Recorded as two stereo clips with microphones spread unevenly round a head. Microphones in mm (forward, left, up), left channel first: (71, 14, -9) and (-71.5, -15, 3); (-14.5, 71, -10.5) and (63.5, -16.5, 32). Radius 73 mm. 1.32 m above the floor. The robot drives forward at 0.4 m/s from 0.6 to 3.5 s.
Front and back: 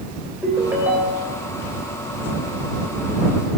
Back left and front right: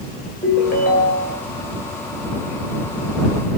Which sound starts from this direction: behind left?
A ringtone, at 0.4 s.